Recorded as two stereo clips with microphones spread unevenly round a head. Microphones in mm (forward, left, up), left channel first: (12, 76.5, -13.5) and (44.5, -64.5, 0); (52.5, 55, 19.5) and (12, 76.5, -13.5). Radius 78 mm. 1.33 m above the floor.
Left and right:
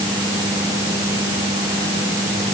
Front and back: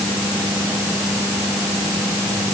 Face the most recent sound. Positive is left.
No sound to turn to.